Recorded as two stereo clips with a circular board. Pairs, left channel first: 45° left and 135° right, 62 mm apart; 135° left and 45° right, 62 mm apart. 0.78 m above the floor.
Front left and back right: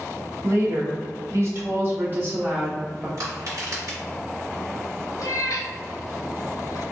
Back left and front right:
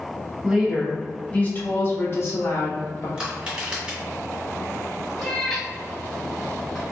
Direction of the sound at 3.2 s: 115° right.